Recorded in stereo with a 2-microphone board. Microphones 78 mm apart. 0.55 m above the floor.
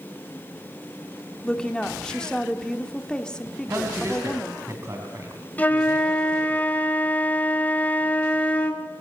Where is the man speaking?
35° right (ahead or behind), 3.5 m.